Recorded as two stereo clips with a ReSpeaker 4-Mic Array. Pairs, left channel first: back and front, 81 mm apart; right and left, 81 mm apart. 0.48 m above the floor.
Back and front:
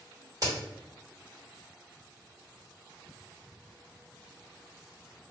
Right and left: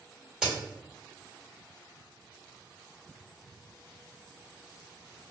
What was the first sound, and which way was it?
A crack, 10° left.